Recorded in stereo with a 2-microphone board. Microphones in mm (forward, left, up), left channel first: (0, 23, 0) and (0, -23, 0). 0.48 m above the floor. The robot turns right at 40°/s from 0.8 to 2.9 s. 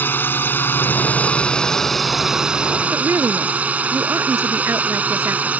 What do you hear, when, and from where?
0.0 s a drone: 50° left (ahead or behind); by 5.6 s 35° right (ahead or behind)
2.9 s a woman speaking: 80° right